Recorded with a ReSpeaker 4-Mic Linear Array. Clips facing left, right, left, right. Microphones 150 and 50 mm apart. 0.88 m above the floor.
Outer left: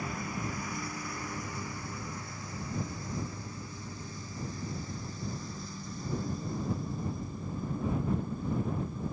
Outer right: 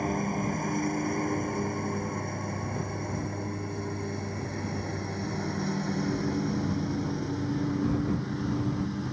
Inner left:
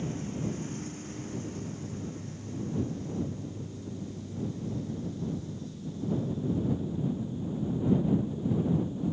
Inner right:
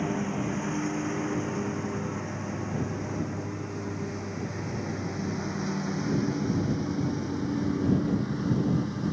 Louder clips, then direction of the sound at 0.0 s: Outer right 8 dB, inner right 5 dB; 45° right (ahead or behind).